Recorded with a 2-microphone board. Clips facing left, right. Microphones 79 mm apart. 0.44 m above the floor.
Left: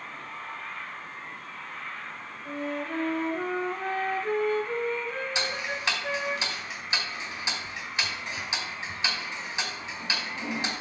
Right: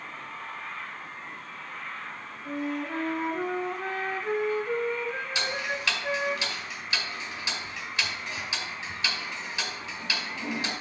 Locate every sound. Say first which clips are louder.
2.5 s a flute: right 1 dB; 15° right (ahead or behind), 1.1 m
5.3 s ticking: right 1 dB; 20° left (ahead or behind), 2.0 m